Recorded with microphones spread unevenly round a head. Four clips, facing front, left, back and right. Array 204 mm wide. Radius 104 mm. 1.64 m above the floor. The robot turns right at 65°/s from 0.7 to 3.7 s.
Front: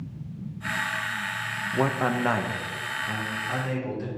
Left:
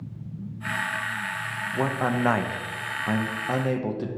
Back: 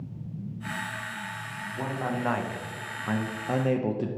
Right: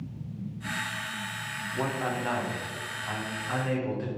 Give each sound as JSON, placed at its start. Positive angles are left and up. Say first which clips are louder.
{"t": 1.7, "sound": "a man speaking", "louder": "left 5 dB, front 6 dB", "azimuth_deg": 15, "distance_m": 0.7}